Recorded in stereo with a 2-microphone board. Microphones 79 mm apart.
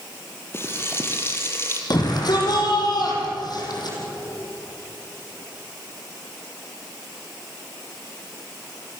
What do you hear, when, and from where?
0.5 s frying: 30° left (ahead or behind), 3.5 m
1.9 s a shout: 60° left (ahead or behind), 7 m